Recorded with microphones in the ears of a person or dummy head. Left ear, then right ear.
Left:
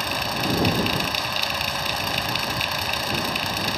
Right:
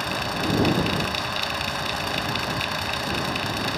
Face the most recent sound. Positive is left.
turn(degrees=20)  # may be behind; listen again after turning